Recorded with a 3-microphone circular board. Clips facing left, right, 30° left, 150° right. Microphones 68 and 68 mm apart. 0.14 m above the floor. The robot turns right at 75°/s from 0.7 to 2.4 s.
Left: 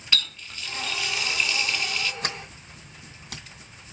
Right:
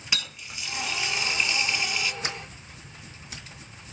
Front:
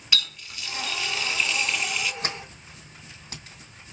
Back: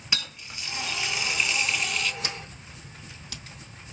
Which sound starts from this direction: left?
A sliding door, at 2.2 s.